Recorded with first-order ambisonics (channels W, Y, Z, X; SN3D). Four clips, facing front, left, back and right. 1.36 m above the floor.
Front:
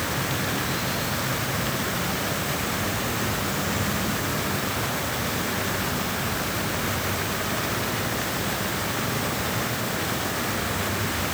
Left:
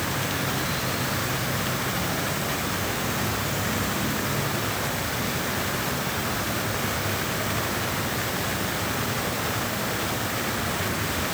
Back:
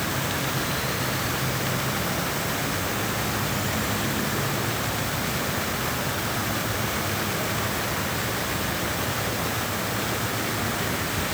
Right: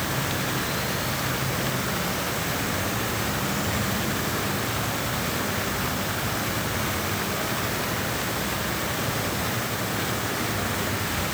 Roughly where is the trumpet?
No trumpet in this recording.